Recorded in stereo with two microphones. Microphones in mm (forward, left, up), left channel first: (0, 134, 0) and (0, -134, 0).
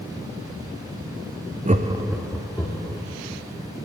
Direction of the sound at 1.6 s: 25° right (ahead or behind).